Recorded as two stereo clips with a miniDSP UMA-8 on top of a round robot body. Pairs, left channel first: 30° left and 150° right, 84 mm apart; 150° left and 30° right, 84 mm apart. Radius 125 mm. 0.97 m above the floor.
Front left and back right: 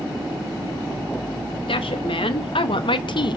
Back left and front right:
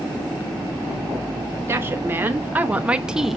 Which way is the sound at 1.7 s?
30° left.